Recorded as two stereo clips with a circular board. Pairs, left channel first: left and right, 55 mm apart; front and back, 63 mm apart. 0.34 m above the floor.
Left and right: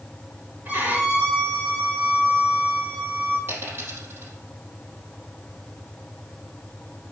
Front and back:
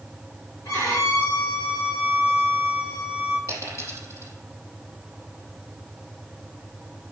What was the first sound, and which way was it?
A violin, 30° right.